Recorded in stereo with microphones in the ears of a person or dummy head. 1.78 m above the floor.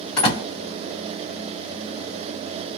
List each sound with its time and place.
0.2 s a door slam: 30° left (ahead or behind), 2.5 m